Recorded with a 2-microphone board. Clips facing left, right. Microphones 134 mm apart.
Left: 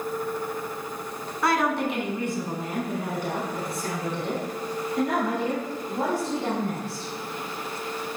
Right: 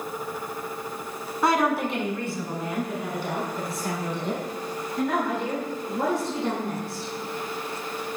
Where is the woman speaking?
20° right (ahead or behind), 1.3 m; by 7.1 s 75° left (ahead or behind), 6 m.